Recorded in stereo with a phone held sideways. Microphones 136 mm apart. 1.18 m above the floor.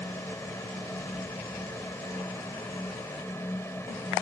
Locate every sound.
0.0 s a fan: 15° left (ahead or behind)